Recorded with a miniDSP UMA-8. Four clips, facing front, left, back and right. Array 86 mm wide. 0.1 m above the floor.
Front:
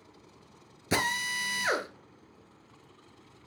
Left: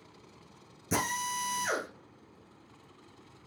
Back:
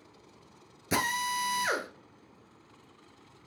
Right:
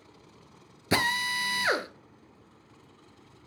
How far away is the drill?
About 0.9 m.